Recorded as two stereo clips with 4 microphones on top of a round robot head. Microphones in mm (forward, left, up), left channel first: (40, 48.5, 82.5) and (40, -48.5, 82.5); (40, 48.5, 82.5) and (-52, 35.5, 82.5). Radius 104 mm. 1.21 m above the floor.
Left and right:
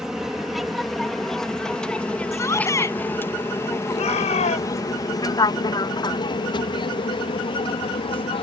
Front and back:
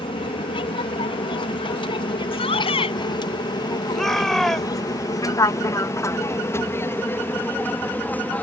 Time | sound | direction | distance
0.0 | an aircraft | 5° right | ?
2.3 | a shout | 30° left | ?
3.9 | a shout | 95° left | ?